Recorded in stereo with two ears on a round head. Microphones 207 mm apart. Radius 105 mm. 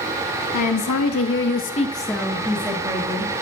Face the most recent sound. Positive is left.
turn(degrees=-30)  # may be behind; listen again after turning